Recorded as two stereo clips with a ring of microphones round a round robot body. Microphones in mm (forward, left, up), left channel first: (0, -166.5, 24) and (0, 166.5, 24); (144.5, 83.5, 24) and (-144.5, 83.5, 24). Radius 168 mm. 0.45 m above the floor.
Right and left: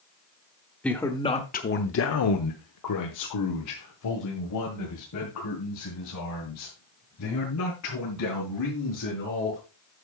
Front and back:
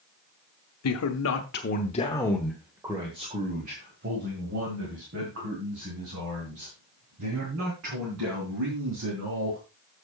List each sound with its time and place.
0.8 s a man speaking: 5° right, 1.1 m; by 9.6 s 135° right, 5 m